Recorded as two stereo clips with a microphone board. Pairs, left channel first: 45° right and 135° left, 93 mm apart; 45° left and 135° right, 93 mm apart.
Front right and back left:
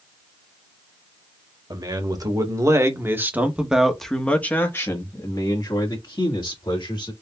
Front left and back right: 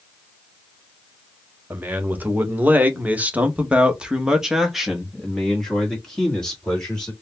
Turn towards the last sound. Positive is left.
turn(degrees=-35)